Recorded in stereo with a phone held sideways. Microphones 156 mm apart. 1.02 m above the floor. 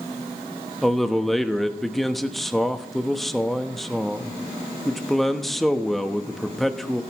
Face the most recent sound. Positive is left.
turn(degrees=0)  # may be behind; listen again after turning